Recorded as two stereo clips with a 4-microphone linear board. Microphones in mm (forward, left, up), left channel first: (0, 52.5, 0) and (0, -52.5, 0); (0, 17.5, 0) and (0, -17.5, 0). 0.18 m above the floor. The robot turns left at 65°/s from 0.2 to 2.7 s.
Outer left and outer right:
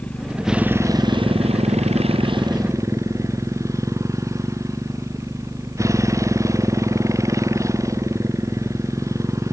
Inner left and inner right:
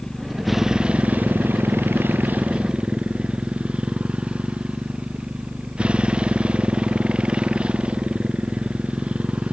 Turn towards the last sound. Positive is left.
turn(degrees=-150)